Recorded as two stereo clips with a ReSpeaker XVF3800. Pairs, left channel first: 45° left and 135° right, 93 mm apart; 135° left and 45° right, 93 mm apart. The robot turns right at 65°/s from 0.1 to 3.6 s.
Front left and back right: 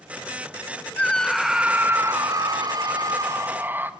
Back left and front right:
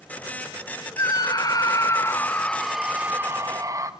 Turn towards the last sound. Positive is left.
turn(degrees=-80)